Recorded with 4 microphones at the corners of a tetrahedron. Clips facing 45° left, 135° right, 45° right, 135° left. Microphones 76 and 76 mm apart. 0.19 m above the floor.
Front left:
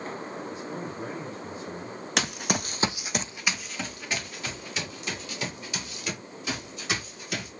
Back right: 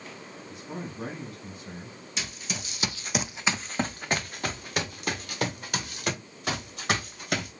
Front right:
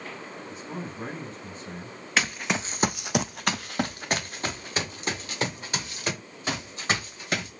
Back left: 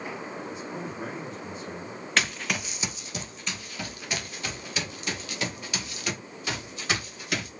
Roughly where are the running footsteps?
Ahead left.